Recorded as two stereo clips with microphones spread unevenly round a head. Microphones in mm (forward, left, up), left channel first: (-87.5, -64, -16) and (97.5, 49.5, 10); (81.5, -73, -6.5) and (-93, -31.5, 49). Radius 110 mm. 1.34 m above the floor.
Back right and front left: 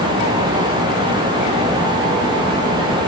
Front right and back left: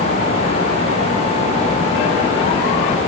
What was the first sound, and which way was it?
Only background noise.